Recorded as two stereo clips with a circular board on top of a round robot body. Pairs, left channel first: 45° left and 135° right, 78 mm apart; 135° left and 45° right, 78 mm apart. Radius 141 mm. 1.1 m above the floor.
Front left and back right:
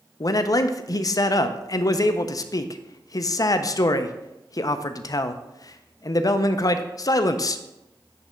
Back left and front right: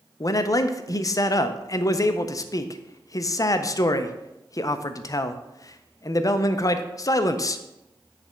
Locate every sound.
0.2 s a man speaking: 90° left, 0.5 m